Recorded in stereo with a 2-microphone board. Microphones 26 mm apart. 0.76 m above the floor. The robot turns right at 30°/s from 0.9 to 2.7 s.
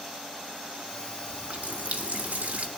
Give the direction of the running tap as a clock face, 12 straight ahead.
4 o'clock.